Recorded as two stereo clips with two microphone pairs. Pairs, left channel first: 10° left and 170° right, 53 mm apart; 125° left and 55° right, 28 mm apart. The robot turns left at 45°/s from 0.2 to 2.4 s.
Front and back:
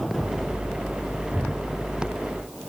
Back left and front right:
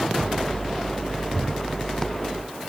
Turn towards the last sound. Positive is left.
turn(degrees=-165)